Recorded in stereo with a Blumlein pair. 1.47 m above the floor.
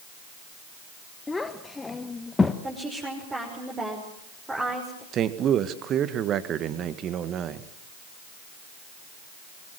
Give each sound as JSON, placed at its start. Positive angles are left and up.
{"t": 1.3, "sound": "a child speaking", "azimuth_deg": 10, "distance_m": 1.2}
{"t": 2.6, "sound": "a woman speaking", "azimuth_deg": -10, "distance_m": 6.0}
{"t": 5.1, "sound": "a man speaking", "azimuth_deg": -30, "distance_m": 1.7}